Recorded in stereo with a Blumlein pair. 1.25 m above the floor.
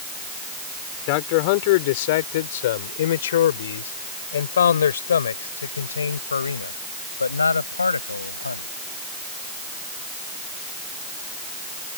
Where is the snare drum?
No snare drum in this recording.